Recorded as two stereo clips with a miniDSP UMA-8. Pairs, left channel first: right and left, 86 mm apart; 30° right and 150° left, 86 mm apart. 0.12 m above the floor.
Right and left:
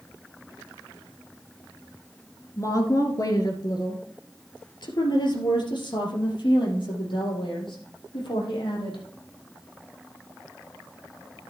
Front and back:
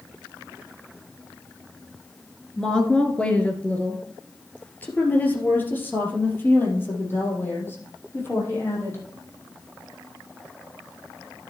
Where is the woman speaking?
105° right, 1.6 m; by 9.0 s 95° right, 4.5 m.